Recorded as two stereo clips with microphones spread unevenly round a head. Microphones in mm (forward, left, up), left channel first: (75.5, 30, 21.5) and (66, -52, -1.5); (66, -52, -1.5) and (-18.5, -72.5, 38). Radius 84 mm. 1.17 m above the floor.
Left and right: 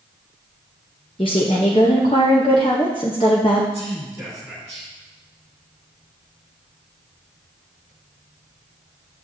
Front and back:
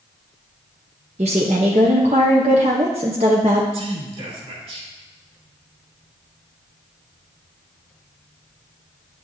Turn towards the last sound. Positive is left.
turn(degrees=-170)